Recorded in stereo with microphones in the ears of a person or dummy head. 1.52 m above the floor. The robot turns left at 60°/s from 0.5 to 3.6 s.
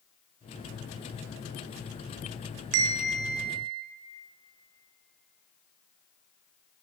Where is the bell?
110° right, 0.9 m; by 3.8 s 160° right, 0.9 m.